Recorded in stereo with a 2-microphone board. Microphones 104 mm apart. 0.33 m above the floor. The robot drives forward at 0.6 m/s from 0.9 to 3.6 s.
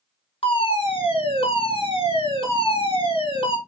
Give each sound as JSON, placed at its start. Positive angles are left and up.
{"t": 0.4, "sound": "a fire alarm", "side_deg": 55, "distance_m": 3.5}